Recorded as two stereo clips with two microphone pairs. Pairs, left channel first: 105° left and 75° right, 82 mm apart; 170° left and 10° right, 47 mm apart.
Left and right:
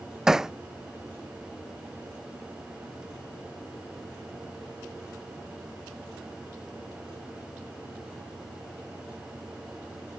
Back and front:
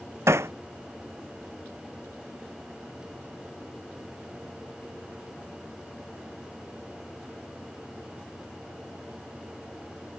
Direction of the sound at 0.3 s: 5° left.